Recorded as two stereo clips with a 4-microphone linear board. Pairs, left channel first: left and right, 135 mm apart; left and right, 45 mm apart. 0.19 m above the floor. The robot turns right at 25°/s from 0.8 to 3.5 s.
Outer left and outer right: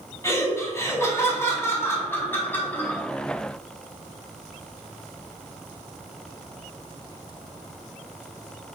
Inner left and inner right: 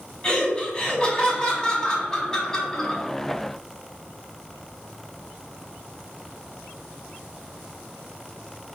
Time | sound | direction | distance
0.2 | laughter | 20° left (ahead or behind) | 1.0 m